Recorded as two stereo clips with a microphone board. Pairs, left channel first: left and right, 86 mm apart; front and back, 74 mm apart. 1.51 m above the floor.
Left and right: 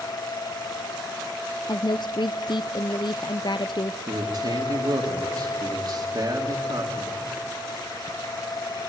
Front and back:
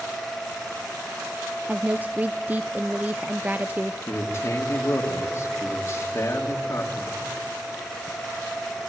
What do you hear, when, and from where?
1.7 s a woman speaking: 115° left, 0.5 m
4.1 s a man speaking: 60° right, 2.5 m